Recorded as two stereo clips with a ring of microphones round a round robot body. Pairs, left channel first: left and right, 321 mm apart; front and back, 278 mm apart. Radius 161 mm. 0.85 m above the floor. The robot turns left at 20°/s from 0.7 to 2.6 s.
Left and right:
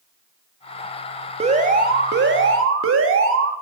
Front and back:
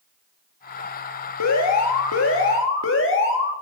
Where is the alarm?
20° right, 2 m; by 3.5 s 45° right, 2 m.